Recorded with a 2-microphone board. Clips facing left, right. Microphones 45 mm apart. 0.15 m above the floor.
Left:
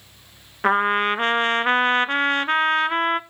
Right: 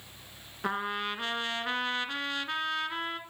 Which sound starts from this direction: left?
A trumpet, at 0.6 s.